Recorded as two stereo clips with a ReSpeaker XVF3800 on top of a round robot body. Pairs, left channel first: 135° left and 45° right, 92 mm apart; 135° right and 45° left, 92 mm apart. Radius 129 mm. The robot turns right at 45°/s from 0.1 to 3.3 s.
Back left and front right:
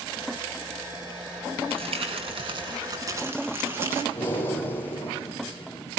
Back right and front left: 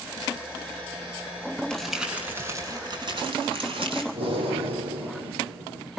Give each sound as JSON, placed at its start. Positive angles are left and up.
{"t": 1.7, "sound": "crumpling", "azimuth_deg": -50, "distance_m": 7.5}
{"t": 4.1, "sound": "breathing", "azimuth_deg": 70, "distance_m": 8.5}